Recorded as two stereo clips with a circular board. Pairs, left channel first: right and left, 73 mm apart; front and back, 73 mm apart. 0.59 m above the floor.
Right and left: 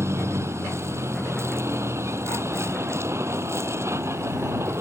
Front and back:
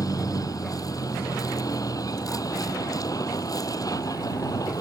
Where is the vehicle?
35° left.